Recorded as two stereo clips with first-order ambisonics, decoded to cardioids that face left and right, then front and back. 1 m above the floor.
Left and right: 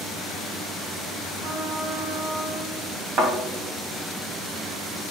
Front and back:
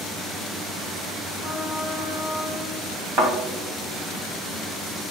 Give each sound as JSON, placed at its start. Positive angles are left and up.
{"t": 1.4, "sound": "a trumpet", "azimuth_deg": -90, "distance_m": 3.0}
{"t": 3.2, "sound": "a thud", "azimuth_deg": -135, "distance_m": 3.5}